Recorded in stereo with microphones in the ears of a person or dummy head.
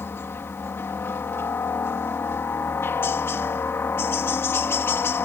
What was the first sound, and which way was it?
A helicopter, 20° left (ahead or behind).